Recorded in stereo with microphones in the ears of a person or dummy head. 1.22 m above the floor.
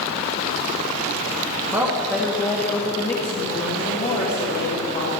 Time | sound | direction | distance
1.7 | a woman speaking | 10° right (ahead or behind) | 1.2 m